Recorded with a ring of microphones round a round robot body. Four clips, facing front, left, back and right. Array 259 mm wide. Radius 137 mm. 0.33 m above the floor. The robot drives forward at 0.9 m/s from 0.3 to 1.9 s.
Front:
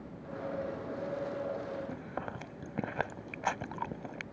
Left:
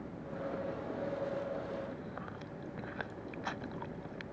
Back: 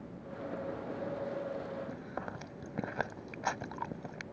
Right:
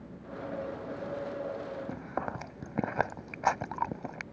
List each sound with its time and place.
1.9 s chewing: 85° right